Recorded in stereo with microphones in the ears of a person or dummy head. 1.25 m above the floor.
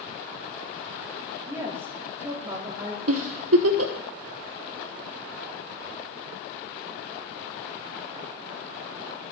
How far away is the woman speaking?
About 2 m.